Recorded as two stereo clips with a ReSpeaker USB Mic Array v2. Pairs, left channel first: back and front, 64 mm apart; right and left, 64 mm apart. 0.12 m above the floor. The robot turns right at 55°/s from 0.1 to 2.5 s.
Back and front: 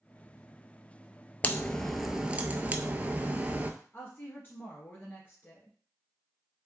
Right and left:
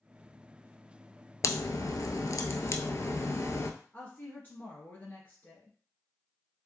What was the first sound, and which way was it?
A crack, 120° right.